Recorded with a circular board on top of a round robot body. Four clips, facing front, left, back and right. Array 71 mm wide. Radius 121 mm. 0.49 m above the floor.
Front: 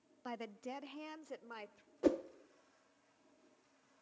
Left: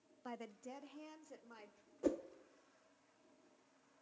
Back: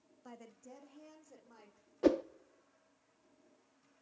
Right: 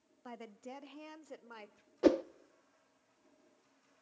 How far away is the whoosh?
About 0.6 m.